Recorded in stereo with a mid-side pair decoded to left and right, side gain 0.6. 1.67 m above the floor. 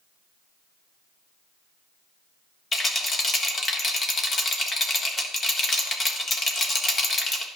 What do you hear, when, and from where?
2.7 s a rattle: 25° left, 1.3 m